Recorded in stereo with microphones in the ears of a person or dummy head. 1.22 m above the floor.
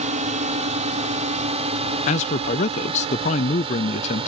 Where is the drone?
35° right (ahead or behind); by 4.3 s 30° right (ahead or behind).